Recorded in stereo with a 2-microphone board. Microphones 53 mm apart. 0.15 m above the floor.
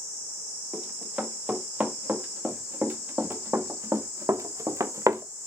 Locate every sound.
0.7 s running footsteps: 15° right (ahead or behind), 4 m; by 5.2 s 75° right (ahead or behind), 1.3 m